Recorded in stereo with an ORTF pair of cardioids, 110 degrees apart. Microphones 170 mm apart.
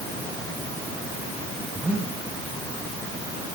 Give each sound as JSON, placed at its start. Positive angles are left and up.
{"t": 1.7, "sound": "breathing", "azimuth_deg": -5, "distance_m": 3.0}